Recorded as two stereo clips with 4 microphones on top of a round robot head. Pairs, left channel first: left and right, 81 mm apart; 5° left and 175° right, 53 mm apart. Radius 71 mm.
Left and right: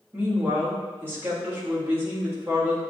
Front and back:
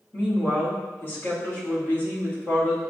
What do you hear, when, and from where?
0.1 s a woman speaking: 35° right, 1.5 m